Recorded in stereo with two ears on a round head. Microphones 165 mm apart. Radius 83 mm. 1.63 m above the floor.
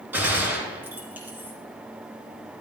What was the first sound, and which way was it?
A gunshot, 10° right (ahead or behind).